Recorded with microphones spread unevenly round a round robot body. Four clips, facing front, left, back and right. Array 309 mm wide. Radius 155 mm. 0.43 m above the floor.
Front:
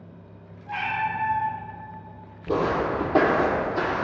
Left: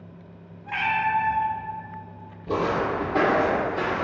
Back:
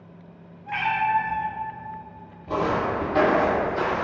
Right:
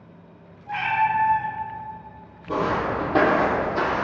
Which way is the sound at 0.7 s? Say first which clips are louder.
Right 2 dB, back 4 dB; 140° left.